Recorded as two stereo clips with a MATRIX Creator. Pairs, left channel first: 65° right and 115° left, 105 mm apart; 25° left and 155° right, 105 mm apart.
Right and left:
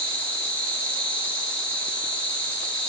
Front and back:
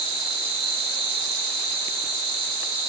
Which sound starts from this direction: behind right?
An insect, at 0.0 s.